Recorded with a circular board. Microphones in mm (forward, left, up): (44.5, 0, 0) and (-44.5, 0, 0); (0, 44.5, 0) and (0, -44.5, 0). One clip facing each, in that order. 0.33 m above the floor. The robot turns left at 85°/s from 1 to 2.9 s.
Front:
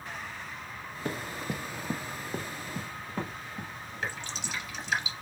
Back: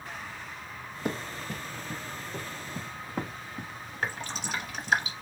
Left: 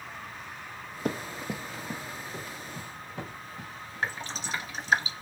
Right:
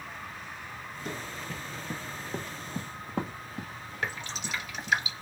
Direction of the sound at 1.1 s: 110° left.